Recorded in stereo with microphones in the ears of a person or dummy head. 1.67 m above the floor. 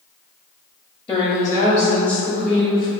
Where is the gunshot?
No gunshot in this recording.